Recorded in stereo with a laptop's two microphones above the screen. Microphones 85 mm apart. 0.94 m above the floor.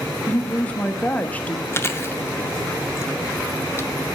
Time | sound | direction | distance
0.3 | a woman speaking | 15° left (ahead or behind) | 1.1 m
1.7 | chewing | 30° left (ahead or behind) | 0.5 m